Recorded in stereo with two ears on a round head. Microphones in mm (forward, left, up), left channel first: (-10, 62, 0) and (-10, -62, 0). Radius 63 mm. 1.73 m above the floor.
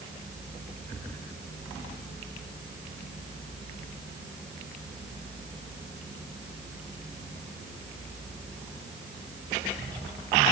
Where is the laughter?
I don't hear laughter.